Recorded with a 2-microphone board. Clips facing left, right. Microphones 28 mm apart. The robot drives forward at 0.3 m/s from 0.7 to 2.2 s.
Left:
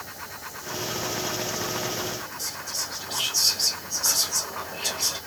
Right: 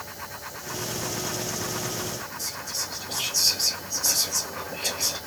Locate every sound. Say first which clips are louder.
2.4 s whispering: even; 10° left (ahead or behind), 2.5 m